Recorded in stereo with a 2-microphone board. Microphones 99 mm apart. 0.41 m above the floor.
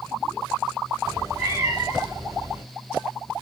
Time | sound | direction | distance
1.1 | a cat meowing | 30° right (ahead or behind) | 1.1 m